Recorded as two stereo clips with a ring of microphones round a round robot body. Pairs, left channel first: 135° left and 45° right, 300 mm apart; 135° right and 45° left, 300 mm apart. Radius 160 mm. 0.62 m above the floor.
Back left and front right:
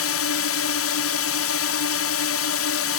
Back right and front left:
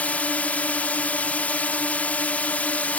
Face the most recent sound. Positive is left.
turn(degrees=140)